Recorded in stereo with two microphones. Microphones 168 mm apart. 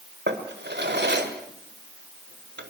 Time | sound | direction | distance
0.3 | a drawer | 80° right | 1.9 m